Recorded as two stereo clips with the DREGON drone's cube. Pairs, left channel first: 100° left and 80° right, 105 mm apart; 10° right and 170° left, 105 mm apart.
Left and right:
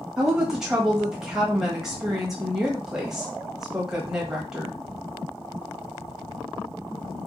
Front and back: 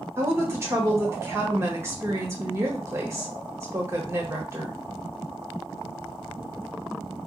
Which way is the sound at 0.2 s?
160° right.